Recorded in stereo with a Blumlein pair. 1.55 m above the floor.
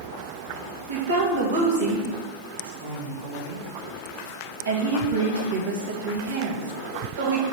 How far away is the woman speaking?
About 1.6 m.